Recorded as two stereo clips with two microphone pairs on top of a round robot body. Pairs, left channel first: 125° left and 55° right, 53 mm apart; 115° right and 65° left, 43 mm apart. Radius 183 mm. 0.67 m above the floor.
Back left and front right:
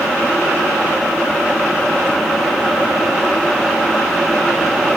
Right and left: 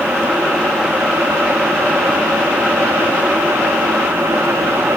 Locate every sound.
Only background noise.